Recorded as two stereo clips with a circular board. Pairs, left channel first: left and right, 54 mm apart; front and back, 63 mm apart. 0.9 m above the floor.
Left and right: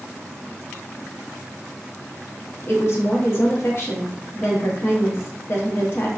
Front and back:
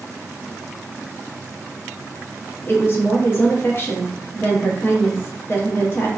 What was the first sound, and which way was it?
A woman speaking, 50° left.